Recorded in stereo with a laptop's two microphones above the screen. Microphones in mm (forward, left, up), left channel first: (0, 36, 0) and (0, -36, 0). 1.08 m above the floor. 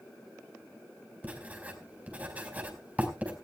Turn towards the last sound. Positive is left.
turn(degrees=-20)  # may be behind; listen again after turning